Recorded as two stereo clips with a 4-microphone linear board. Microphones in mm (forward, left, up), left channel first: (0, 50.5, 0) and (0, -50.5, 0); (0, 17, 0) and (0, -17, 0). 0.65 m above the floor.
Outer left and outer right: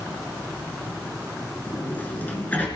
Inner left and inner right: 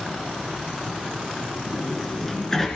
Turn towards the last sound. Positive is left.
turn(degrees=20)  # may be behind; listen again after turning